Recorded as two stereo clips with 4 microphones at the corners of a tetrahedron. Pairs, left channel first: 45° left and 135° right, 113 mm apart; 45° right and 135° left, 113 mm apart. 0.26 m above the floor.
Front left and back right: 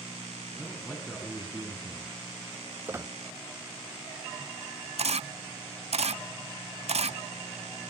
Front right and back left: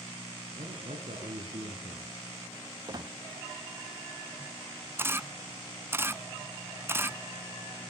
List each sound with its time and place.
0.6 s a man speaking: 130° left, 3 m
2.9 s a squeak: 165° left, 0.6 m
5.0 s a camera shutter: 155° right, 0.6 m